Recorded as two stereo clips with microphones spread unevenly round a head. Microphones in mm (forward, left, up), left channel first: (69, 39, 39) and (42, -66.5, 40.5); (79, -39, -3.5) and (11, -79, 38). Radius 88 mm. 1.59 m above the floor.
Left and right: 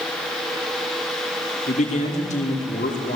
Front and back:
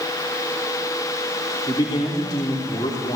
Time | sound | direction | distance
1.7 | a man speaking | 90° left | 5 m